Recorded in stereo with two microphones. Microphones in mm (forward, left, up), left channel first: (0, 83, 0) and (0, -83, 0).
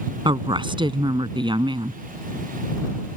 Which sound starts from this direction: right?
A woman speaking, at 0.2 s.